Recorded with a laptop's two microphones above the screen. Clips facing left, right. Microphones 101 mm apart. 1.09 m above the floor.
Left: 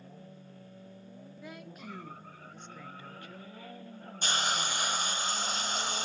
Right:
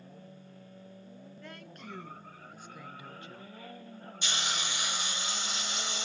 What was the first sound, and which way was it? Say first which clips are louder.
A woman speaking: left 3 dB; 10° left (ahead or behind).